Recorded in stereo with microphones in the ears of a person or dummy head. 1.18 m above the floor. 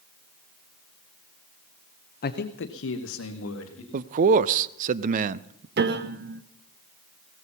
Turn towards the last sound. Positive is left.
turn(degrees=-45)  # may be behind; listen again after turning